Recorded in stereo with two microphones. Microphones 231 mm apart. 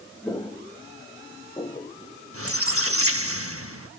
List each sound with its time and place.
0.2 s footsteps: 15° left (ahead or behind), 2.5 m; by 3.0 s 20° left (ahead or behind), 1.2 m
2.3 s a squeak: 65° right (ahead or behind), 1.2 m